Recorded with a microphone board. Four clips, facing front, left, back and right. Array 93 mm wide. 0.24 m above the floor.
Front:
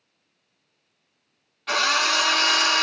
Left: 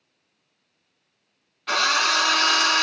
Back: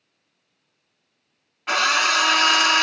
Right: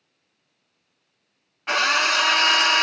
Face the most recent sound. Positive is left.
turn(degrees=-130)